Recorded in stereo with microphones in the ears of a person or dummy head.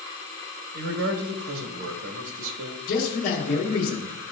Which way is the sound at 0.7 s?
75° right (ahead or behind).